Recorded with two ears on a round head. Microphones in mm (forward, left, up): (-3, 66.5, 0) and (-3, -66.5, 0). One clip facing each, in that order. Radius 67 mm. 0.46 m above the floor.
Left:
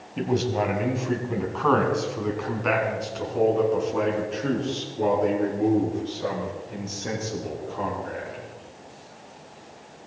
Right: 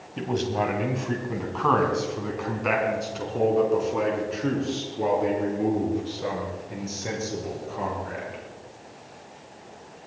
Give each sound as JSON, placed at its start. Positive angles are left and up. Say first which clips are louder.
{"t": 0.2, "sound": "a man speaking", "louder": "left 2 dB", "side_deg": 5, "distance_m": 2.5}